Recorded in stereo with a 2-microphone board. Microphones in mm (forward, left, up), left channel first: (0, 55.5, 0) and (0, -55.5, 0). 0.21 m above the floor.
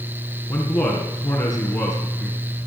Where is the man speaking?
35° left (ahead or behind), 2.5 m.